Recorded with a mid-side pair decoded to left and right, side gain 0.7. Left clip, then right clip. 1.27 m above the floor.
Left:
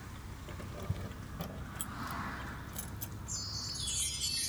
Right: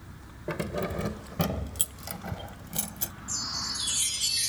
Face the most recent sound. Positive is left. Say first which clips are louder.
# right 8 dB
turn(degrees=-35)